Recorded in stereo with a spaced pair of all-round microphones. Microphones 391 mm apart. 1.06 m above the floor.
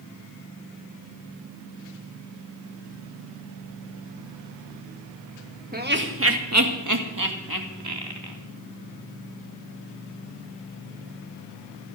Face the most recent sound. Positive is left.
turn(degrees=-65)  # may be behind; listen again after turning